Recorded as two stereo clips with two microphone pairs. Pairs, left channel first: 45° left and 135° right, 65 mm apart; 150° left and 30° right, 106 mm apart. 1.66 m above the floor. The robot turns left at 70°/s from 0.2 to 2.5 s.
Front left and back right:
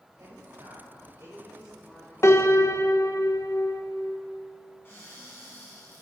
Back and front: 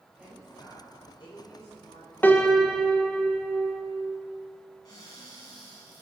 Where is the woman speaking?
105° right, 5 m; by 2.1 s 120° left, 5 m.